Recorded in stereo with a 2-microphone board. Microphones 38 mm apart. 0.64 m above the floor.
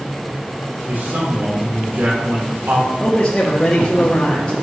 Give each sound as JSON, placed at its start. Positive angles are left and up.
{"t": 0.8, "sound": "a man speaking", "side_deg": -50, "distance_m": 1.5}
{"t": 3.0, "sound": "a man speaking", "side_deg": 20, "distance_m": 0.9}